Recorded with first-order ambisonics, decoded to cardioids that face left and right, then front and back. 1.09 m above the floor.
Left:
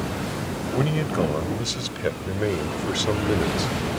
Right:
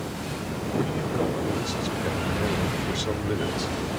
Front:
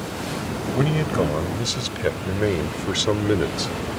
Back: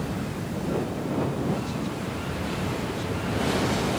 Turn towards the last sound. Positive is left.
turn(degrees=10)